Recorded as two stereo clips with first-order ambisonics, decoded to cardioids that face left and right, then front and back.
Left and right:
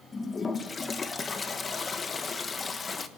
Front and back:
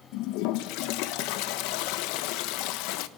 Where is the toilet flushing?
20° left, 1.4 m.